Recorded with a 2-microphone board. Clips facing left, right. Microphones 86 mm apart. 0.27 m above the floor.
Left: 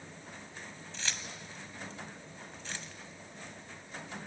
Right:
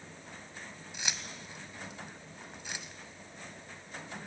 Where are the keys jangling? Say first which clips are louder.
Right 1 dB; 15° right (ahead or behind), 1.3 m.